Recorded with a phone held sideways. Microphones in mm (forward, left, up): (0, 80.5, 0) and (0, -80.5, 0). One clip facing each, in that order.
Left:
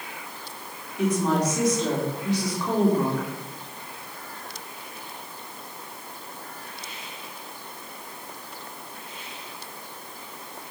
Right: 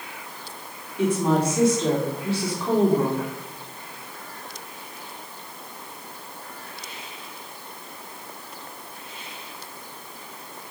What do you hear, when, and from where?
1.0 s a woman speaking: 5° right (ahead or behind), 3 m